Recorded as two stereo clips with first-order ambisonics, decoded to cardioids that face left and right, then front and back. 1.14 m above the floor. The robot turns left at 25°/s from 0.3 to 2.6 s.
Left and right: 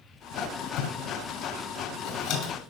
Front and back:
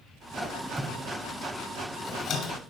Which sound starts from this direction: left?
A squeak, at 0.3 s.